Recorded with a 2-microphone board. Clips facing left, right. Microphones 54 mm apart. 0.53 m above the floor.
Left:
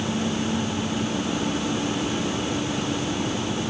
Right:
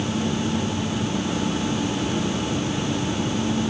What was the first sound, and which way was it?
Only background noise.